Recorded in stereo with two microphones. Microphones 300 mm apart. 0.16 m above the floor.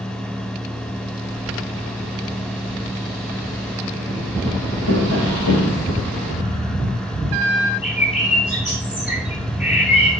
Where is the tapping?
75° left (ahead or behind), 1.9 m.